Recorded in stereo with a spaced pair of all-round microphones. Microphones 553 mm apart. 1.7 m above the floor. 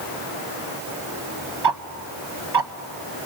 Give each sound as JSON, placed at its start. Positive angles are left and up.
{"t": 1.6, "sound": "ticking", "side_deg": -45, "distance_m": 0.7}